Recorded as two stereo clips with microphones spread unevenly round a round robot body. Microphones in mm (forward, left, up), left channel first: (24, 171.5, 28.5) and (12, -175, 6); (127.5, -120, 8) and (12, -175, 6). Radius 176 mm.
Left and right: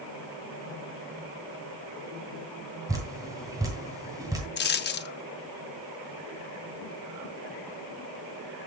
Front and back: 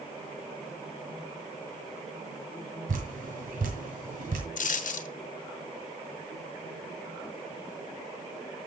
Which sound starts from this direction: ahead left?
A dropped coin, at 4.6 s.